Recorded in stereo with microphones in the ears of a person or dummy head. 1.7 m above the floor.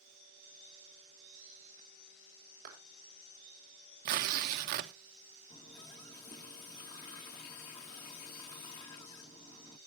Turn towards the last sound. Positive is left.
turn(degrees=20)  # may be behind; listen again after turning